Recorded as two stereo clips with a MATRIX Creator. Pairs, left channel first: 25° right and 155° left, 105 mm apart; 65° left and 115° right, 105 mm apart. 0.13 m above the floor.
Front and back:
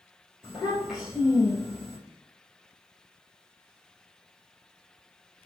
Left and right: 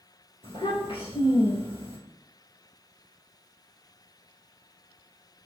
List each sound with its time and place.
0.4 s a child speaking: 70° left, 1.9 m